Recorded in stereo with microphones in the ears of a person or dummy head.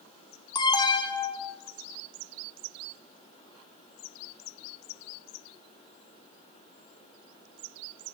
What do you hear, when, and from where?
0.6 s an alarm: 15° left (ahead or behind), 0.8 m